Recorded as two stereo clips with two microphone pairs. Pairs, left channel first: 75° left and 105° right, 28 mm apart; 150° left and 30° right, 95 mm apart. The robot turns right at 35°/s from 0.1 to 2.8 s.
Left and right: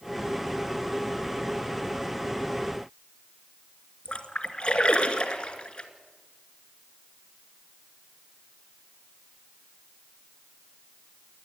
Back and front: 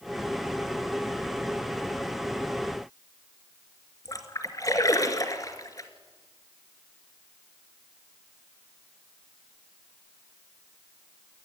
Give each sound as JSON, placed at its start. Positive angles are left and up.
{"t": 4.0, "sound": "a splash", "azimuth_deg": 110, "distance_m": 2.0}